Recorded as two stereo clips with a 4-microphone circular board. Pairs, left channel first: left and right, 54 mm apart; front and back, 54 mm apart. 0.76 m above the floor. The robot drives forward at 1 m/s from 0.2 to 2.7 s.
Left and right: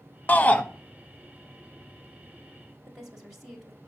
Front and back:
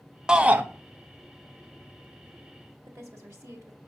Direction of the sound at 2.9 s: Straight behind.